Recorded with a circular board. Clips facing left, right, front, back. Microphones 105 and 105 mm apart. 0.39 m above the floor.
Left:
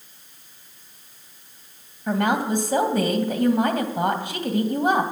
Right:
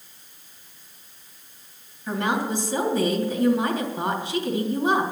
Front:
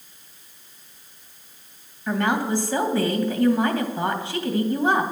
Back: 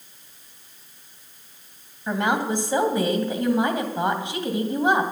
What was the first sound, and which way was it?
A woman speaking, 110° left.